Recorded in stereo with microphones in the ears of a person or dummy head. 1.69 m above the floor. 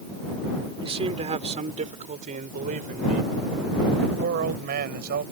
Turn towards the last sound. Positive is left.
turn(degrees=-55)  # may be behind; listen again after turning